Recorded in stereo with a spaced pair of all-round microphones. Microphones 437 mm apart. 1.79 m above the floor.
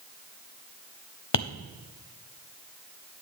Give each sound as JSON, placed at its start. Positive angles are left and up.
{"t": 1.3, "sound": "tapping", "side_deg": 75, "distance_m": 0.6}